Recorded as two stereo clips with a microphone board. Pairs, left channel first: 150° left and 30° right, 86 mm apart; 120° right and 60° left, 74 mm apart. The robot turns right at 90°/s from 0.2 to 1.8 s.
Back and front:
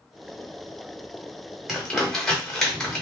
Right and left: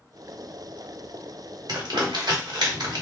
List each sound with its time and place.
1.7 s crumpling: 55° left, 1.1 m; by 3.0 s 65° left, 1.1 m